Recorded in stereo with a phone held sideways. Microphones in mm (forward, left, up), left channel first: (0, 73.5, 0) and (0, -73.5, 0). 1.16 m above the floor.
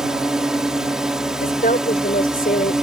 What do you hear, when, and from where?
0.0 s a drone: 5° right (ahead or behind)
1.4 s a woman speaking: 80° left